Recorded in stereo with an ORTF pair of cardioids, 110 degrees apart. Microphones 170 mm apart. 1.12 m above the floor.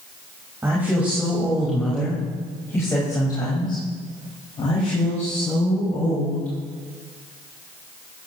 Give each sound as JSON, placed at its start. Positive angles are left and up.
{"t": 0.6, "sound": "a woman speaking", "azimuth_deg": -15, "distance_m": 5.0}